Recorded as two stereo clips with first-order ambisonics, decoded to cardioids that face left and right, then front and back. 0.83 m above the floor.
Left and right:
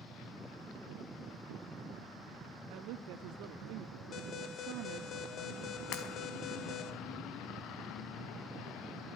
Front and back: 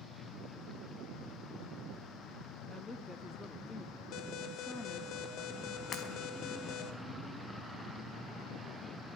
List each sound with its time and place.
2.7 s a woman speaking: 75° right, 1.6 m
4.1 s an alarm: 35° left, 2.5 m
5.9 s breaking glass: 60° left, 4.5 m